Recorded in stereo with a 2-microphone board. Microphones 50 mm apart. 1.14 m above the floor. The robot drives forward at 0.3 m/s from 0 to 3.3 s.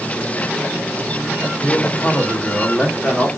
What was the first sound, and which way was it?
A man speaking, centre (ahead or behind).